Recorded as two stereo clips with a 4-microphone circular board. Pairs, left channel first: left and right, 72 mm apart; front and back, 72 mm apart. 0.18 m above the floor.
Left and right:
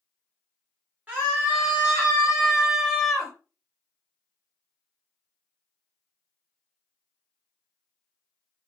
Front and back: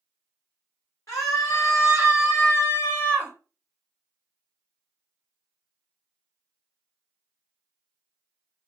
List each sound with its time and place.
1.1 s a scream: 30° right, 2 m; by 3.3 s 5° left, 1.3 m